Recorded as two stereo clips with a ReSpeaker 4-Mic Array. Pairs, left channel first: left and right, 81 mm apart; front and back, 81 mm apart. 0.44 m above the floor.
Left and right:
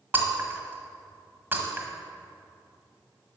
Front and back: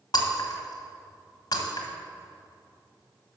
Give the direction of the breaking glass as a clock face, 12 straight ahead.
1 o'clock.